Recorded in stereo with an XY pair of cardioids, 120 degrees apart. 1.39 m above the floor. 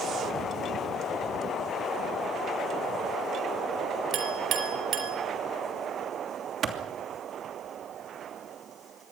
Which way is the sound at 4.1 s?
60° right.